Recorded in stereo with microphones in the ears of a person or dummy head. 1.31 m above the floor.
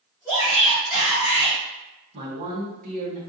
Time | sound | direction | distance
0.2 | a shout | 15° right (ahead or behind) | 1.3 m
2.1 | a man speaking | 50° right (ahead or behind) | 1.0 m